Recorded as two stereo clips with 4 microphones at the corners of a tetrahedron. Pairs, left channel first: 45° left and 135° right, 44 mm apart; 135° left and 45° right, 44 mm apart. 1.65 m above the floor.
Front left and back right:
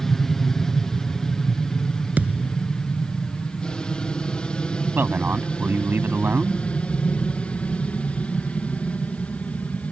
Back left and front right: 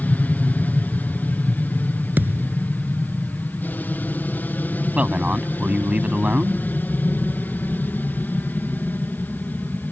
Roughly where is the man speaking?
Right.